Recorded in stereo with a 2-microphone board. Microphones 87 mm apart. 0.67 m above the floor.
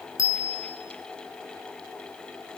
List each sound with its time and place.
0.2 s a bicycle bell: 35° left (ahead or behind), 5 m